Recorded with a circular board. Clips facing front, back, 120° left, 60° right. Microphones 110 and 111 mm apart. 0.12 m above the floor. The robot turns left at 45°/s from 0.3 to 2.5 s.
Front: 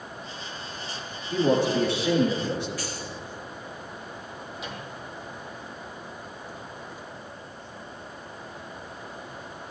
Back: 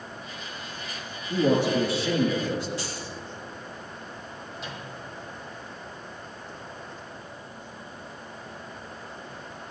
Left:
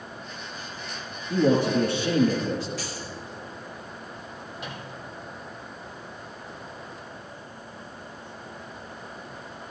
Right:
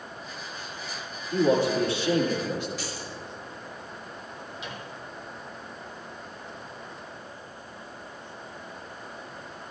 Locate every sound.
1.3 s a man speaking: 125° left, 5.5 m; by 2.7 s 70° left, 5.5 m
2.8 s keys jangling: 115° left, 5.5 m
4.6 s a microwave: 85° left, 3 m